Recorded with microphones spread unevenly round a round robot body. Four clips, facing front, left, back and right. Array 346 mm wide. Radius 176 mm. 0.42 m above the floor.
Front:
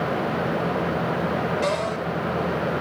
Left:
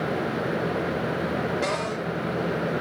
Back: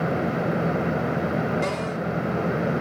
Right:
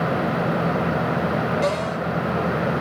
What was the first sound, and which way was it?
A cupboard door, 160° right.